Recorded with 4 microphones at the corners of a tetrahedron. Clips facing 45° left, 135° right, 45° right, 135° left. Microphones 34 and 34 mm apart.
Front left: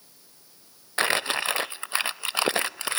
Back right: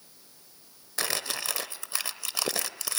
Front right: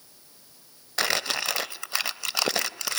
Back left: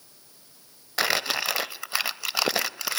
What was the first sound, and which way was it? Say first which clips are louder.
Crumpling: front left 8 dB, back left 1 dB; 60° left.